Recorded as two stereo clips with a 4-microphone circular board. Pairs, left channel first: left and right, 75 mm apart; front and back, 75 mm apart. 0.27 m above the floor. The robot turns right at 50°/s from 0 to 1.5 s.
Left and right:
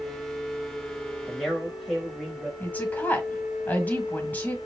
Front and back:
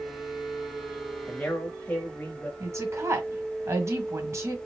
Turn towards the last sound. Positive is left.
turn(degrees=150)